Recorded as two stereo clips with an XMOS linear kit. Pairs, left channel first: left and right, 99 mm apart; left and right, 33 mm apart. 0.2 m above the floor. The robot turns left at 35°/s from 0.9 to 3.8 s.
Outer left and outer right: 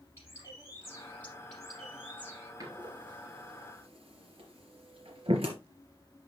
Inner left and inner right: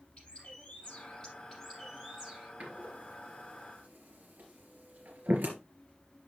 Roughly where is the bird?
Ahead left.